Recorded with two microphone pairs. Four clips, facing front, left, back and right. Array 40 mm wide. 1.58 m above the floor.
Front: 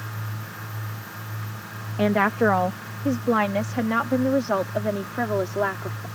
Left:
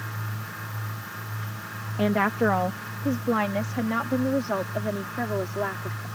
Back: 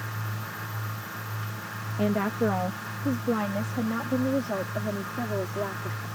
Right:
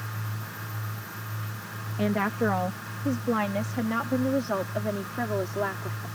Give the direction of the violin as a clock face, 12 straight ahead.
No violin in this recording.